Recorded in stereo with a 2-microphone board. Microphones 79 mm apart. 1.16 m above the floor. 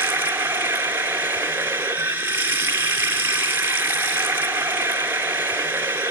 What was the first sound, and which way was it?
Running water, 25° right (ahead or behind).